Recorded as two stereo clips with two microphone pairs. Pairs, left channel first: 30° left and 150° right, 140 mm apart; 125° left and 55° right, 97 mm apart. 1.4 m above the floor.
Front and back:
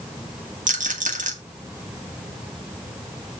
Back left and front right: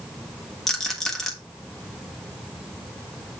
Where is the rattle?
150° right, 1.4 m.